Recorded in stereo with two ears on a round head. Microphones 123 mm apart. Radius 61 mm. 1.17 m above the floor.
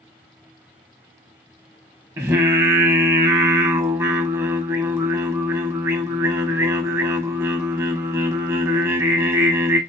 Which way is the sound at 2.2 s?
20° right (ahead or behind).